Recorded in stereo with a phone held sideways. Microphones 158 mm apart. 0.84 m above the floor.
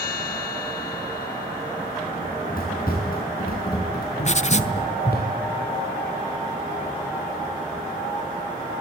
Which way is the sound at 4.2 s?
45° left (ahead or behind).